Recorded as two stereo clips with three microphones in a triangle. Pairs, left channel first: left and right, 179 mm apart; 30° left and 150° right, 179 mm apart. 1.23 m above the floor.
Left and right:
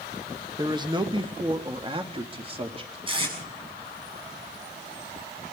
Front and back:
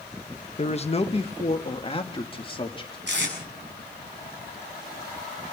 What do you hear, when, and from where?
0.6 s a man speaking: 25° right, 1.2 m; by 3.0 s 30° right, 3 m
3.1 s tape being pulled: 150° right, 7.5 m